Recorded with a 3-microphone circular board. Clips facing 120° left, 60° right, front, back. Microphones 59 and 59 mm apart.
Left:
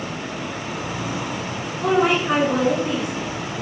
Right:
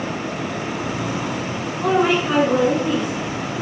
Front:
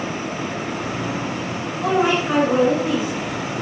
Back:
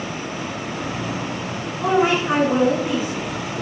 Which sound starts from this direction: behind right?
A woman speaking, at 1.8 s.